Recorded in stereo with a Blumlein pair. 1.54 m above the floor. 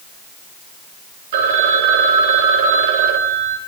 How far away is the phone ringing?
About 4 m.